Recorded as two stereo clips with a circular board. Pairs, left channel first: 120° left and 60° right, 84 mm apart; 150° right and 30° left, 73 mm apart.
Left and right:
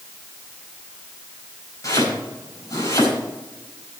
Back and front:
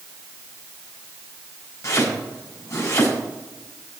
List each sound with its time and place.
1.8 s chopping: 170° left, 5 m